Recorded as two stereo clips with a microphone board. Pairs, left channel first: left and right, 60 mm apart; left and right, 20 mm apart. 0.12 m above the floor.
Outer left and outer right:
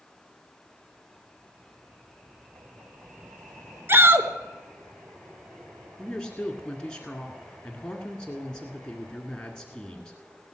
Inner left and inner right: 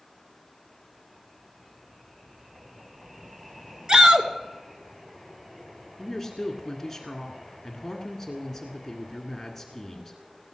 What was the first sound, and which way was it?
A shout, 40° right (ahead or behind).